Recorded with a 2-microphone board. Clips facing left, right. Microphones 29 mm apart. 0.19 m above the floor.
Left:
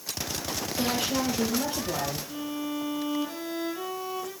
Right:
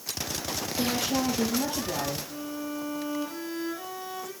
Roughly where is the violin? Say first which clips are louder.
Left 2 dB; left.